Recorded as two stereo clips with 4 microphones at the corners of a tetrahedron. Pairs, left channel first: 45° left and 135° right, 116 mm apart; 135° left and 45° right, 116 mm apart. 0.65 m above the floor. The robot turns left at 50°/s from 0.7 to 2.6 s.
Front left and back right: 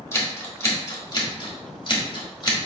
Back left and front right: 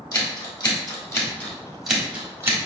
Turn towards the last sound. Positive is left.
turn(degrees=5)